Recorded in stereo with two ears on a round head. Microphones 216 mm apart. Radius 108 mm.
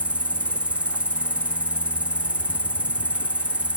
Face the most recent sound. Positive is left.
turn(degrees=-5)  # may be behind; listen again after turning